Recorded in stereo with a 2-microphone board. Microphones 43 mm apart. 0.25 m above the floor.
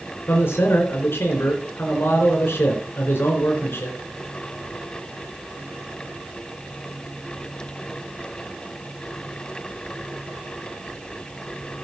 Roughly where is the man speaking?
Left.